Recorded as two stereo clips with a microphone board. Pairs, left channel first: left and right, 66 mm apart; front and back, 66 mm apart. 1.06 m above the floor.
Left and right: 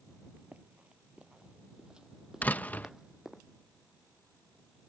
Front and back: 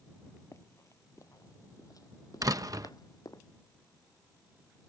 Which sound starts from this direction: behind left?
A door slam, at 2.4 s.